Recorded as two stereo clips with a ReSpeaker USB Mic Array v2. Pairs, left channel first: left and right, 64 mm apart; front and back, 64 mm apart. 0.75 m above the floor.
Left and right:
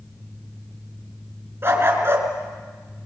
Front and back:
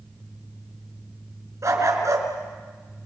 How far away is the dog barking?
About 3.5 m.